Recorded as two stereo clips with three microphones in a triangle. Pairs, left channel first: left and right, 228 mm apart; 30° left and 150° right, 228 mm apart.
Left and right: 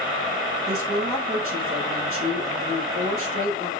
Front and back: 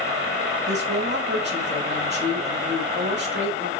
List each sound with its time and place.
0.7 s a woman speaking: 110° right, 5.5 m